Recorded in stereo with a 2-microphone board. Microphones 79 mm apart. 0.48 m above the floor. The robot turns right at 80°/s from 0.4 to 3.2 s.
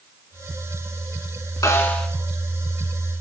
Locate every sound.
1.6 s a snare drum: 135° left, 2 m; by 2.1 s 170° left, 2 m